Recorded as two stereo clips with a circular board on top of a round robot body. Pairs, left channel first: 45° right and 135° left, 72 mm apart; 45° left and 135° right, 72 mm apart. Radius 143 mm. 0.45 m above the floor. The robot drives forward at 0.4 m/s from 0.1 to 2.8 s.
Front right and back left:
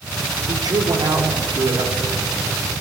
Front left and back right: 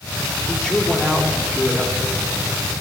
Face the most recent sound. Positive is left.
turn(degrees=140)